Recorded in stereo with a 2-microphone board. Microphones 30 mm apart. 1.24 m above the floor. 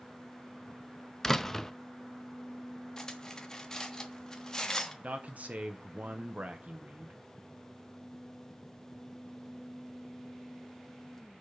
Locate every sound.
1.2 s a door slam: 10° left (ahead or behind), 0.5 m
3.0 s cutlery clinking: 20° left (ahead or behind), 1.2 m
5.0 s a man speaking: 55° right (ahead or behind), 1.1 m